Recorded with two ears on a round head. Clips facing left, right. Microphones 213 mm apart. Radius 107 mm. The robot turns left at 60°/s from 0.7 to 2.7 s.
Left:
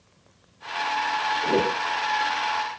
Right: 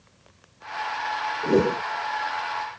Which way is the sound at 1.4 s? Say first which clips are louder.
Right 4 dB; 15° right (ahead or behind).